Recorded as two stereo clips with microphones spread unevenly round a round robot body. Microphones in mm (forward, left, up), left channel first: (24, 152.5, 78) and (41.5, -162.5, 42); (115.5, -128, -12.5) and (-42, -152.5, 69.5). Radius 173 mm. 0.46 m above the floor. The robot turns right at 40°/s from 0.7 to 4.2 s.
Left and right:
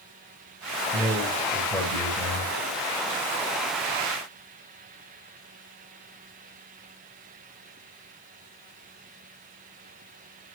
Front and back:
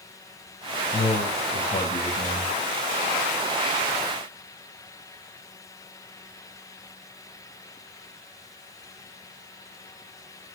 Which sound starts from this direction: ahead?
A man speaking, at 0.9 s.